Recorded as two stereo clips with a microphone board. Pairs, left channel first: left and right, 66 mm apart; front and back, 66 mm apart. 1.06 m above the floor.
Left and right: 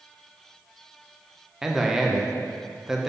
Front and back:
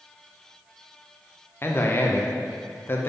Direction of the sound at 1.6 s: 10° right.